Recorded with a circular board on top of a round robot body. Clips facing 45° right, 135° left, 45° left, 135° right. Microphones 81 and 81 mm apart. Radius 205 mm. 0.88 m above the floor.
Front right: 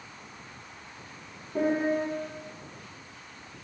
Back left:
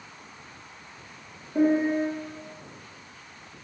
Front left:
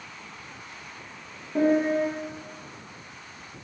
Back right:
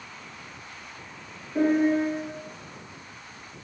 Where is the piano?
25° left, 1.3 m.